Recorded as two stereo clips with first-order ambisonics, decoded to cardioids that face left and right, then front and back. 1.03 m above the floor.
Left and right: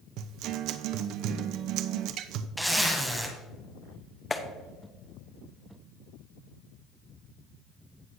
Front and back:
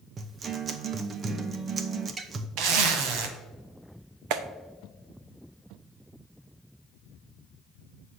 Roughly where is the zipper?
Behind.